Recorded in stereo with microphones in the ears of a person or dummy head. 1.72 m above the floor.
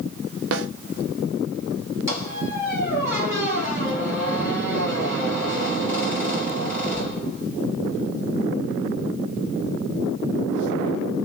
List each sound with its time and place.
0.5 s a snare drum: 65° right (ahead or behind), 0.6 m
2.1 s a squeak: 15° right (ahead or behind), 2.5 m